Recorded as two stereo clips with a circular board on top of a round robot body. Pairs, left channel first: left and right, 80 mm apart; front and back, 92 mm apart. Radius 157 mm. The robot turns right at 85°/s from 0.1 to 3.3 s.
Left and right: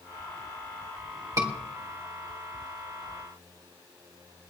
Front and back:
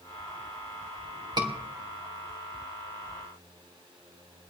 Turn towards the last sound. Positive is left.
turn(degrees=20)